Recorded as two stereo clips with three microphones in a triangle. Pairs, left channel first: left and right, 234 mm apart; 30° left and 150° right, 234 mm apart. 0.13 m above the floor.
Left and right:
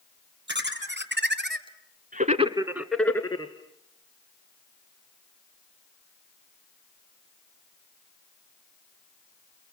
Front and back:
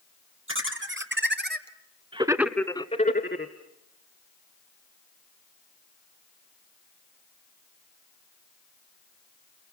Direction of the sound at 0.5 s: 125° right.